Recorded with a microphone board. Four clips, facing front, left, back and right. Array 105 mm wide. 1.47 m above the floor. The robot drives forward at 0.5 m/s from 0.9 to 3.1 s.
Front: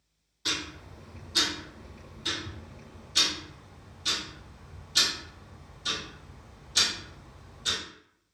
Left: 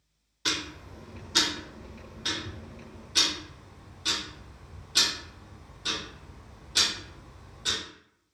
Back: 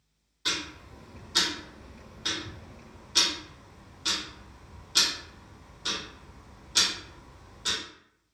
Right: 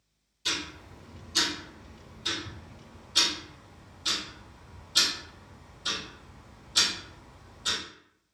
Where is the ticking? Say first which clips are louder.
Left 2 dB, even; 90° left, 0.7 m; by 7.8 s 150° left, 1.3 m.